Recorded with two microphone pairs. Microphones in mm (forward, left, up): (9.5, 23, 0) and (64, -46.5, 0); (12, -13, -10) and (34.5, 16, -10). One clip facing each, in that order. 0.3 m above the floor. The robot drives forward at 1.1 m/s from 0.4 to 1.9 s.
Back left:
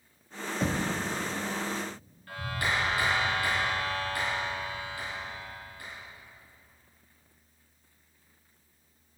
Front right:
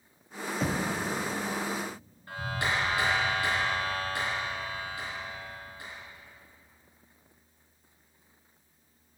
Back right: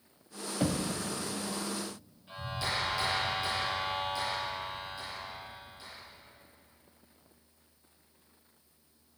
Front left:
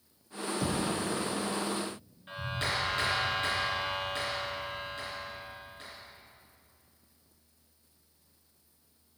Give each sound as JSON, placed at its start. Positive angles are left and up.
{"t": 0.6, "sound": "knocking", "azimuth_deg": -140, "distance_m": 0.7}
{"t": 2.3, "sound": "a clap", "azimuth_deg": 15, "distance_m": 3.5}